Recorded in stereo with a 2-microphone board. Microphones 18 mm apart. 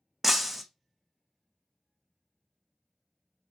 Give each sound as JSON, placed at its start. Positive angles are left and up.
{"t": 0.2, "sound": "breaking glass", "side_deg": -10, "distance_m": 0.5}